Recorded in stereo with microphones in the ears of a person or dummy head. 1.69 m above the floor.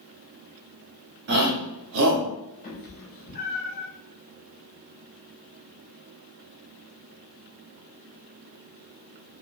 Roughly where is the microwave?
No microwave in this recording.